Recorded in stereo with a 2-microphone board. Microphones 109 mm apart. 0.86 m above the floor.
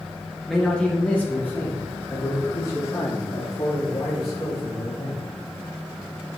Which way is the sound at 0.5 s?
5° left (ahead or behind).